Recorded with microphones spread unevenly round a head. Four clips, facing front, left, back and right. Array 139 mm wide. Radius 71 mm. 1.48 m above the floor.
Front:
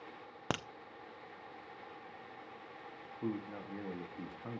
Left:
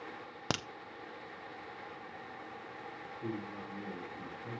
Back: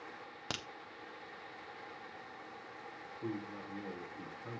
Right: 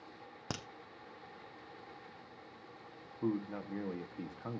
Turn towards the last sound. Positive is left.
turn(degrees=-75)